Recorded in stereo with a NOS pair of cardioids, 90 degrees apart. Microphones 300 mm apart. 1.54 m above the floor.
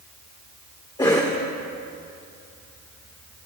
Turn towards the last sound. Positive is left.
turn(degrees=15)